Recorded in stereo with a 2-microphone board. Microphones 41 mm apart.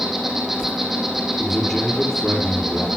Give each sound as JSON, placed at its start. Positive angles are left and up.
{"t": 0.0, "sound": "an insect", "side_deg": -10, "distance_m": 3.0}
{"t": 1.4, "sound": "a man speaking", "side_deg": 0, "distance_m": 4.0}